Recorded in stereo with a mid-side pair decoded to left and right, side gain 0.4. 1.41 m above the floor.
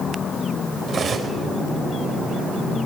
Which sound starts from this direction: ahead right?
Cutlery clinking, at 0.9 s.